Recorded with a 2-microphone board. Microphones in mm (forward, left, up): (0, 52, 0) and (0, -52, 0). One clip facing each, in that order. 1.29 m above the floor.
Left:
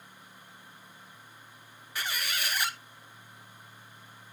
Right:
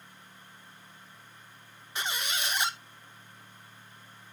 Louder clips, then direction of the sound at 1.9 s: Right 1 dB; 20° right (ahead or behind).